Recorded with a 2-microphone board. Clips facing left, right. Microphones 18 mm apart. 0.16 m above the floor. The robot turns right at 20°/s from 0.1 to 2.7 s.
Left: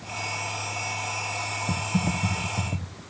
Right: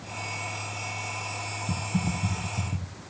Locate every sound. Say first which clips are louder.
1.7 s typing on a keyboard: left 2 dB; 65° left (ahead or behind), 0.6 m; by 3.0 s 80° left, 0.6 m